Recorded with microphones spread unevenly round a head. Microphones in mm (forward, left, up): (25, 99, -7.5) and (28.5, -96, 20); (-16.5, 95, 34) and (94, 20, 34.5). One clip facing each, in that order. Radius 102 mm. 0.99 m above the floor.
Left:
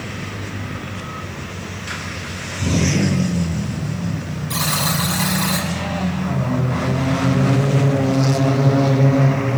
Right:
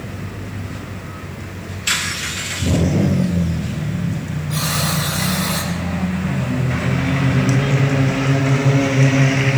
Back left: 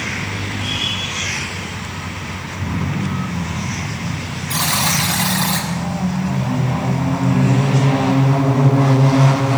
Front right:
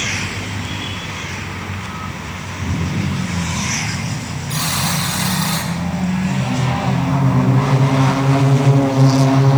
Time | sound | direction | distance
4.5 | a buzzer | 115° left | 7.5 m